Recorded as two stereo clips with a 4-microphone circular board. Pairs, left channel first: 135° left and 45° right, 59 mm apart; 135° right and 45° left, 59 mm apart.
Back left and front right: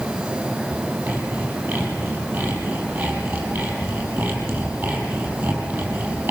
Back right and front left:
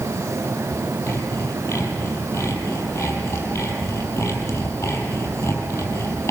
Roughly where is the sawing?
Right.